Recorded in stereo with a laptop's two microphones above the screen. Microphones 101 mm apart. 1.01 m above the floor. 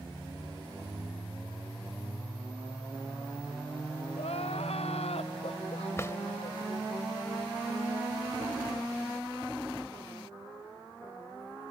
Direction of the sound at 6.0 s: 25° left (ahead or behind).